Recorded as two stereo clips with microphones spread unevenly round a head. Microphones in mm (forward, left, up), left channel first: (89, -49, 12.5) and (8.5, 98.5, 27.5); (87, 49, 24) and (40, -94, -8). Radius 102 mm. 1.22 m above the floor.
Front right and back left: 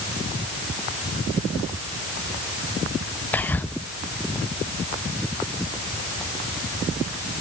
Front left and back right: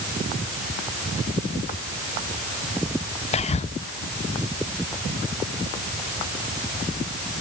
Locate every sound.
3.3 s whispering: 15° left, 0.6 m